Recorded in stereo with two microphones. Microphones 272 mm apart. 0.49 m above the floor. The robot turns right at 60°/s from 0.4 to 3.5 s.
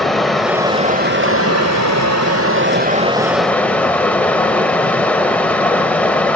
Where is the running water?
Straight behind, 1.1 m; by 6.4 s 5° left, 1.1 m.